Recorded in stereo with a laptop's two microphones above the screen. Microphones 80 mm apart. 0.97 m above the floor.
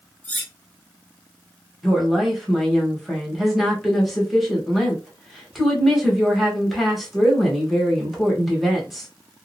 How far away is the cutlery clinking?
About 0.7 m.